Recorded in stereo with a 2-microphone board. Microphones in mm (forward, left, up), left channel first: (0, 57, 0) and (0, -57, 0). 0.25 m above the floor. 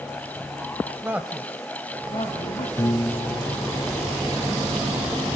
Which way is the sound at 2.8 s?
25° left (ahead or behind).